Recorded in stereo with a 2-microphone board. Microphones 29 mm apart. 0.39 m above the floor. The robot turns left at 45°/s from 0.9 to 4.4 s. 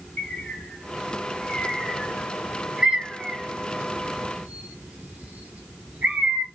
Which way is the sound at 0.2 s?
65° left (ahead or behind).